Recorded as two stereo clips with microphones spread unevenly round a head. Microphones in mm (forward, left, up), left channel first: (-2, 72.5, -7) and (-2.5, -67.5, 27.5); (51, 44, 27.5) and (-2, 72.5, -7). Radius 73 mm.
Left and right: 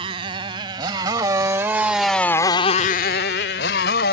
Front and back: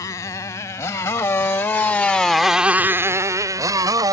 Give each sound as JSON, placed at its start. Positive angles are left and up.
{"t": 0.0, "sound": "a motorcycle", "azimuth_deg": -40}